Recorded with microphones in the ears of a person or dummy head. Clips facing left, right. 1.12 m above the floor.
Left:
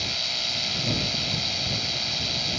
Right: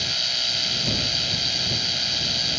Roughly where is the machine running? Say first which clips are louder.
Even; centre.